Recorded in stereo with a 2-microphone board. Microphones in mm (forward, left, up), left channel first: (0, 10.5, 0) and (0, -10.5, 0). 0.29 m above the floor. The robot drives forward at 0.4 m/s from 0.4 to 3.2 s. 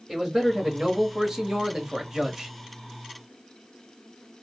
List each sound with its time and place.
0.1 s a man speaking: 20° right (ahead or behind), 1.0 m